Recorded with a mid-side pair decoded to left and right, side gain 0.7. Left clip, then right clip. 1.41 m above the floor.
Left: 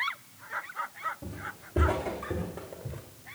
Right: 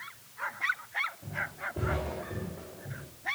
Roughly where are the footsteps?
Ahead left.